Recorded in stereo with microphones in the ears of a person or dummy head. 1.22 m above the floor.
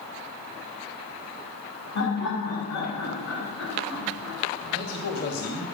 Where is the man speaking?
55° left (ahead or behind), 1.5 m.